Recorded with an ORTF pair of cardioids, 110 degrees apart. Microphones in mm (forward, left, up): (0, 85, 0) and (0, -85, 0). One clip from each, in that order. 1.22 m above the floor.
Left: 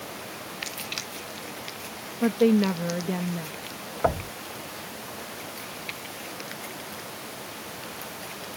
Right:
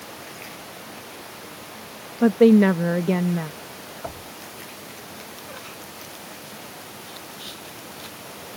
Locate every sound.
2.2 s a woman speaking: 40° right
4.0 s knocking: 60° left